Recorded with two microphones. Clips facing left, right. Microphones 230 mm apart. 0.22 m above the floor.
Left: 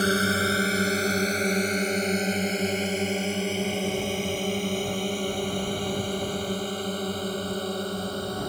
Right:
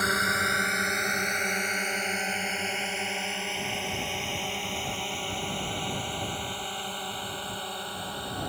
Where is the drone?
30° left (ahead or behind); by 8.5 s 45° left (ahead or behind).